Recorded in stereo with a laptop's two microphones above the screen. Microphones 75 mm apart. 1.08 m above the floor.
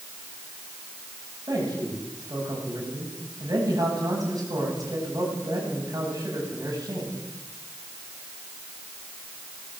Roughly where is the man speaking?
Right.